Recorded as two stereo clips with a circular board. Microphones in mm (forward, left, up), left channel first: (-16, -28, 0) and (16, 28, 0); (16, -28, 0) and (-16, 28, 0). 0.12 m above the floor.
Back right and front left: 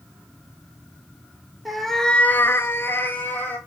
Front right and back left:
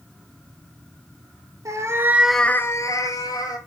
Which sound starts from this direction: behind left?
A cat meowing, at 1.6 s.